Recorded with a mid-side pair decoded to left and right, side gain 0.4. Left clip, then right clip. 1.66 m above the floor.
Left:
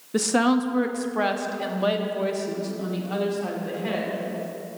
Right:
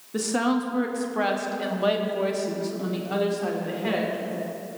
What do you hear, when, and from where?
0.1 s a woman speaking: 50° left, 0.8 m; by 4.2 s 15° right, 2 m